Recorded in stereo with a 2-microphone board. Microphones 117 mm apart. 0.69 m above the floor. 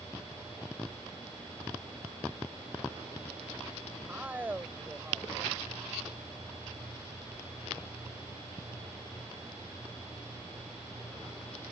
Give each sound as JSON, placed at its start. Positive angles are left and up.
{"t": 4.1, "sound": "a man speaking", "side_deg": -15}